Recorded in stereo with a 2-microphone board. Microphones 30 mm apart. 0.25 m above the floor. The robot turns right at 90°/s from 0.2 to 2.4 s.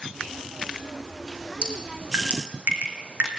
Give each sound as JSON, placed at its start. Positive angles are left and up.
{"t": 1.6, "sound": "dripping", "side_deg": -30, "distance_m": 3.5}